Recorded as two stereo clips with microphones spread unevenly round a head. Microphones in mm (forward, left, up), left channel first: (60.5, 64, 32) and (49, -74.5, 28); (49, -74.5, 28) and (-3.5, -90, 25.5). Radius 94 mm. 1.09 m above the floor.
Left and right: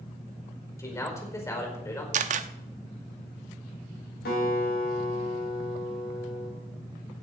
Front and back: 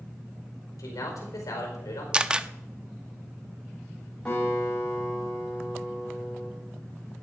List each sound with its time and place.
0.8 s a man speaking: 20° left, 5 m
2.1 s a camera shutter: 95° right, 0.7 m
4.2 s a guitar: 95° left, 6 m